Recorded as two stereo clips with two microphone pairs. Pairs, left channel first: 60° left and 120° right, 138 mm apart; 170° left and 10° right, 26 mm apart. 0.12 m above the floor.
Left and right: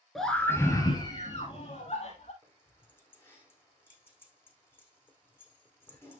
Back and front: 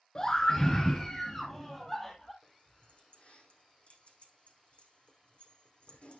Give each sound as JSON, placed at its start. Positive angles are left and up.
{"t": 0.1, "sound": "a scream", "azimuth_deg": 150, "distance_m": 1.4}
{"t": 2.4, "sound": "keys jangling", "azimuth_deg": 135, "distance_m": 5.0}